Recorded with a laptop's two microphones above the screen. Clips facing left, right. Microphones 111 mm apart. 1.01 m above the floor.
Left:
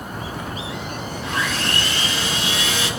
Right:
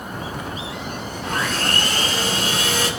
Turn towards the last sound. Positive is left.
turn(degrees=-50)  # may be behind; listen again after turning